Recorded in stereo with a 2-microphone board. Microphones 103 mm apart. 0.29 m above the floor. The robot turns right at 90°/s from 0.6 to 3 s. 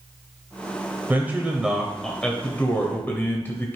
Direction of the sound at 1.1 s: 20° right (ahead or behind).